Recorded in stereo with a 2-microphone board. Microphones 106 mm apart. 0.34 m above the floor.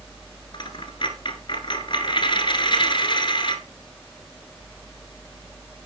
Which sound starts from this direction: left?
A dropped coin, at 0.5 s.